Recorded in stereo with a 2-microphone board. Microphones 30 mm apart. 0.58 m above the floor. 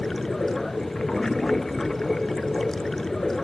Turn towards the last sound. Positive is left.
turn(degrees=15)  # may be behind; listen again after turning